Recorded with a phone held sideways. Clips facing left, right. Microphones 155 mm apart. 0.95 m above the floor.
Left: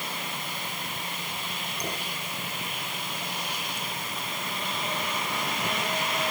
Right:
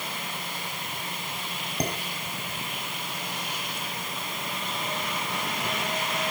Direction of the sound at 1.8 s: 70° right (ahead or behind).